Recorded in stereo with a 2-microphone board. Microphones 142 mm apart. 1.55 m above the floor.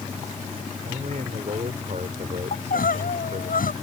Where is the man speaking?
60° right (ahead or behind).